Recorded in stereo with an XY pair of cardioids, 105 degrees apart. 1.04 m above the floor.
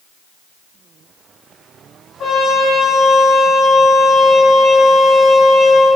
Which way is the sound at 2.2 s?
65° left.